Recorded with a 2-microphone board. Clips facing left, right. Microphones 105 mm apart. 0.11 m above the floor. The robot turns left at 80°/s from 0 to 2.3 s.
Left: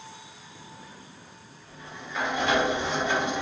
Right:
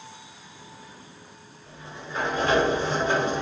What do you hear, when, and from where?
1.7 s a sliding door: 35° right, 1.3 m; by 3.4 s 85° right, 1.3 m